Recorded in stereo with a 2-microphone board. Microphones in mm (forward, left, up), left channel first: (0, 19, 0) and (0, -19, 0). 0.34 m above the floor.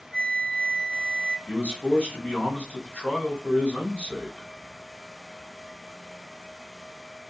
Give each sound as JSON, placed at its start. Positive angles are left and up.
{"t": 0.1, "sound": "a flute", "side_deg": 35, "distance_m": 1.3}
{"t": 1.5, "sound": "a man speaking", "side_deg": 55, "distance_m": 2.5}